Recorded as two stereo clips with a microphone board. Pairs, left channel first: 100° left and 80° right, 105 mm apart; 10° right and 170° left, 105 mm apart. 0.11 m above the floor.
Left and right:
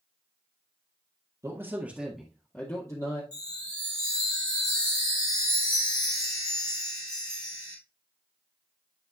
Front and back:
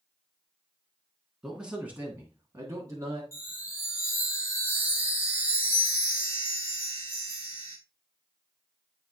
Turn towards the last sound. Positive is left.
turn(degrees=50)